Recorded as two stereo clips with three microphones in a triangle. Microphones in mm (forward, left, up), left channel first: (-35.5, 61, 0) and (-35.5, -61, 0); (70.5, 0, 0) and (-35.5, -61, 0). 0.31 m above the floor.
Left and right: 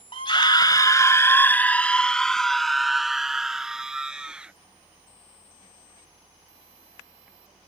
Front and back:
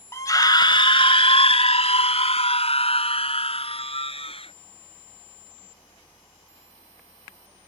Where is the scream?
85° left; by 4.5 s 10° right.